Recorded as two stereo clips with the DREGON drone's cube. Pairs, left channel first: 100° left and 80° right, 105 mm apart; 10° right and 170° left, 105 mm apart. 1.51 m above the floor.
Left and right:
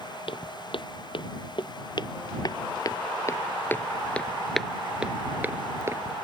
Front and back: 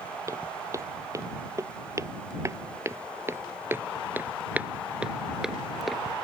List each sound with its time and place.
0.3 s footsteps: 115° left; by 6.1 s 100° right